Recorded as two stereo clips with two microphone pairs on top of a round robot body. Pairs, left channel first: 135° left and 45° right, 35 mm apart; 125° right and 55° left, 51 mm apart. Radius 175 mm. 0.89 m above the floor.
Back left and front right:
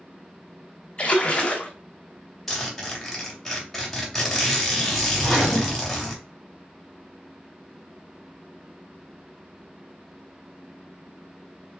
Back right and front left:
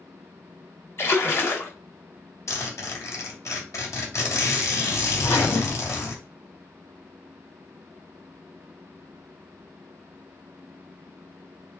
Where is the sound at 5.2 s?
140° right, 1.7 m.